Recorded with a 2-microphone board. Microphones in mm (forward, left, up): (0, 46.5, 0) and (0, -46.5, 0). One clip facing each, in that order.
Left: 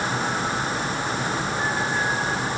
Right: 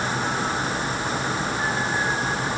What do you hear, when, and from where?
Only background noise.